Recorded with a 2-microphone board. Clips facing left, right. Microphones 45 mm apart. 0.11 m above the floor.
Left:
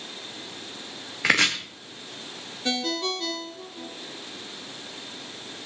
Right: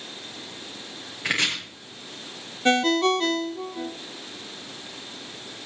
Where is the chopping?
85° left, 3 m.